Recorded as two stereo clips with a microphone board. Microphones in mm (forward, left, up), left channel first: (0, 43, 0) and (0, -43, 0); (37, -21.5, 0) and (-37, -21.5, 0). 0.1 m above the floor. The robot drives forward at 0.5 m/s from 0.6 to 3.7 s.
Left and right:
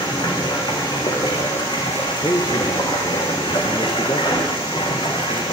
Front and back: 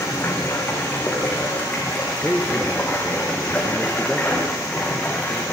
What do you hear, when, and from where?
0.0 s running water: 60° left, 7 m; by 5.5 s 70° left, 6 m
2.2 s a man speaking: 75° left, 3 m; by 5.4 s 90° left, 2.5 m